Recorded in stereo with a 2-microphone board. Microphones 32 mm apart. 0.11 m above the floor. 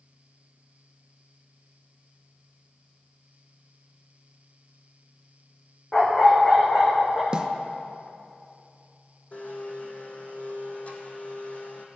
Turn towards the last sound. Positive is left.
turn(degrees=50)  # may be behind; listen again after turning